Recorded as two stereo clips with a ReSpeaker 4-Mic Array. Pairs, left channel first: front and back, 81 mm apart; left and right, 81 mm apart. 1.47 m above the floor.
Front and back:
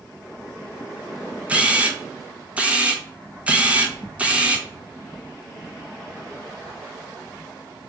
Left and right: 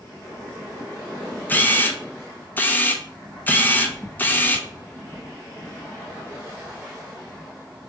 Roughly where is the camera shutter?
Behind left.